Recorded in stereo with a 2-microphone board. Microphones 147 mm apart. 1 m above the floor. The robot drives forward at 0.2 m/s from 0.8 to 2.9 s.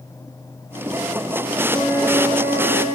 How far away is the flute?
About 1.1 m.